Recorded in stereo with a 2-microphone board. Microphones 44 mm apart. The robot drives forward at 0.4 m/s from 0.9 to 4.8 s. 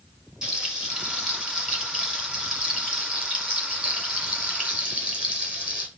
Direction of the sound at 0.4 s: 20° right (ahead or behind).